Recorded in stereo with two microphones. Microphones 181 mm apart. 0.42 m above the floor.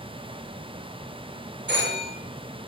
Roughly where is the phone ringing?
Right.